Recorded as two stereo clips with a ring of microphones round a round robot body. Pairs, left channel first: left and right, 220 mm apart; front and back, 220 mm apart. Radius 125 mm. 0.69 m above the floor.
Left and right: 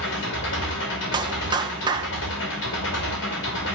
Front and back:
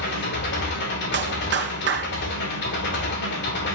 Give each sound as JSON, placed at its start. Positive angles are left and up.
{"t": 0.0, "sound": "an engine running", "azimuth_deg": 45, "distance_m": 2.5}
{"t": 1.1, "sound": "a clap", "azimuth_deg": -155, "distance_m": 1.4}